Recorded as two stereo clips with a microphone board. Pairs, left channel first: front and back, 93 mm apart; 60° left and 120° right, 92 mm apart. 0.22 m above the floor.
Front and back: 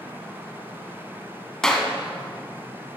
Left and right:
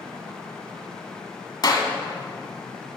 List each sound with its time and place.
1.6 s a clap: 80° left, 1.1 m